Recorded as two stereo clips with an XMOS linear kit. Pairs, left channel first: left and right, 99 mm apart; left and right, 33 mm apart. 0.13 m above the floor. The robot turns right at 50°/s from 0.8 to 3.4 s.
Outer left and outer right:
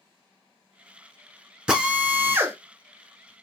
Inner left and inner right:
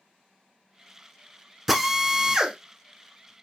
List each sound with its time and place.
1.7 s a drill: 165° right, 1.0 m; by 2.5 s 120° right, 1.0 m